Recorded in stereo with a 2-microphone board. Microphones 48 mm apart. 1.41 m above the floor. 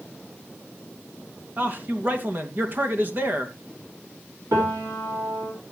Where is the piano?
90° right, 4.5 m.